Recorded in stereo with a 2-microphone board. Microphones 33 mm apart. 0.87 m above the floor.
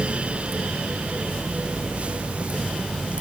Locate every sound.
Only background noise.